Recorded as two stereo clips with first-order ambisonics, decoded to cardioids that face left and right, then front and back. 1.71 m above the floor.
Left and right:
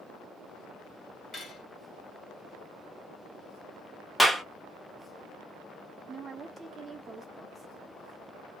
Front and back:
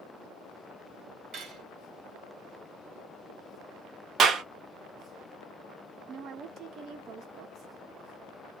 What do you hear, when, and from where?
1.3 s cutlery clinking: 145° left, 1.0 m
4.2 s a clap: straight behind, 0.6 m
6.1 s a woman speaking: 150° right, 0.5 m